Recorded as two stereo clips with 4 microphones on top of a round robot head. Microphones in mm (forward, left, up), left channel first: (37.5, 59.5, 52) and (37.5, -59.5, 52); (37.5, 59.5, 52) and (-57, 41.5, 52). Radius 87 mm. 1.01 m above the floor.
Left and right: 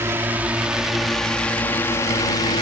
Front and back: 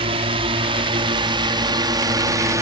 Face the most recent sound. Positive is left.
turn(degrees=140)